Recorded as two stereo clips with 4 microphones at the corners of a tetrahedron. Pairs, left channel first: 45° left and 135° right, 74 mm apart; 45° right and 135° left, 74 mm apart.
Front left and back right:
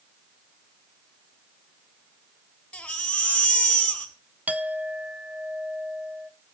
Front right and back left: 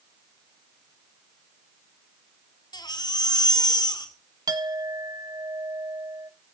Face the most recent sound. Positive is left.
turn(degrees=155)